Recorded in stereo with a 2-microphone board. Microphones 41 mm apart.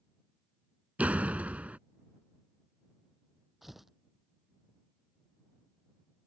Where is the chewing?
I don't hear chewing.